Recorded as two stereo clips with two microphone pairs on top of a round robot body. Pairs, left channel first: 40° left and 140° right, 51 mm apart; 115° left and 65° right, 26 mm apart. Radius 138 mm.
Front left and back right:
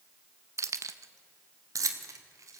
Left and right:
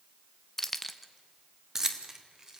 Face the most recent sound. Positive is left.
turn(degrees=-130)